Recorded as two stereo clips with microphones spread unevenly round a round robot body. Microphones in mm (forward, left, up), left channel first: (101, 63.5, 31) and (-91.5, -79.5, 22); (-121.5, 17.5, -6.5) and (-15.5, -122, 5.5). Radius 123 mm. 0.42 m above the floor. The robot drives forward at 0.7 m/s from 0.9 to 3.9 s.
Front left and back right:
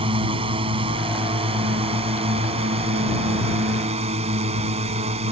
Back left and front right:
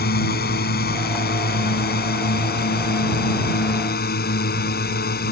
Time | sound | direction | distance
0.0 | a drone | 150° left | ?